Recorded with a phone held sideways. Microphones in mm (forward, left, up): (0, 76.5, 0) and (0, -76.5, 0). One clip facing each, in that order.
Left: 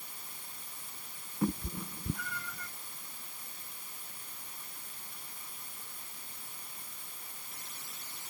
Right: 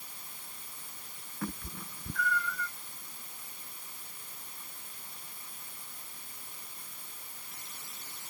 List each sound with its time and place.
1.4 s a cat meowing: 25° left (ahead or behind)